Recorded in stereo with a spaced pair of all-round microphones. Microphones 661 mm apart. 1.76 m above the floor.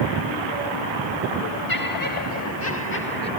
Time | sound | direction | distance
1.7 | laughter | 30° left (ahead or behind) | ?